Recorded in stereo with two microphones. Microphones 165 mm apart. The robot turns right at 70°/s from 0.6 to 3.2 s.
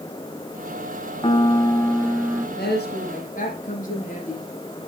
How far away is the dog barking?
I don't hear a dog barking.